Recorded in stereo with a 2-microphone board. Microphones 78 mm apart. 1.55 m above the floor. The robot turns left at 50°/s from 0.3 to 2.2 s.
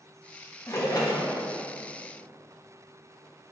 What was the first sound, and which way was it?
A splash, 140° left.